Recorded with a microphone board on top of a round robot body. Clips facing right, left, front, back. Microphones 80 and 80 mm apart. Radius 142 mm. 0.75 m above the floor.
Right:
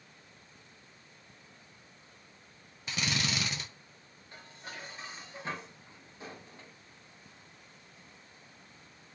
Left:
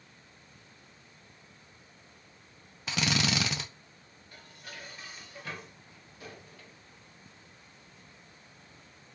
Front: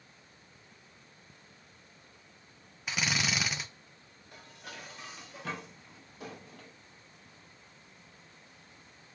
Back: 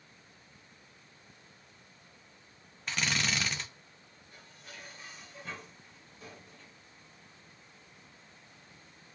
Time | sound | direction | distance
2.9 | a drill | 85° left | 0.5 m
4.3 | dishes clattering | 25° right | 0.6 m